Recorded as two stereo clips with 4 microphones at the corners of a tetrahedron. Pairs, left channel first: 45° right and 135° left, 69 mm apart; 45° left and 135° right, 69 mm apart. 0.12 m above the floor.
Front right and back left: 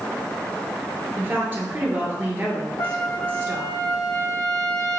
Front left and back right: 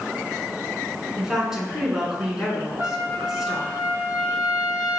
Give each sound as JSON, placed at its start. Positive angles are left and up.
{"t": 1.2, "sound": "a woman speaking", "azimuth_deg": 155, "distance_m": 1.2}
{"t": 2.8, "sound": "a trumpet", "azimuth_deg": -80, "distance_m": 0.8}